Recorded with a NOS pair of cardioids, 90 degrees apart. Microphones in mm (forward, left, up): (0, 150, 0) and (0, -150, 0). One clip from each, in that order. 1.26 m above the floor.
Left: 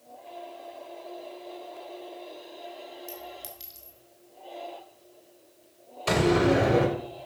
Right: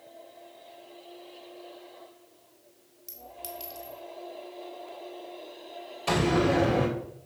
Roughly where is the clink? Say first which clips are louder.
Left 1 dB; ahead.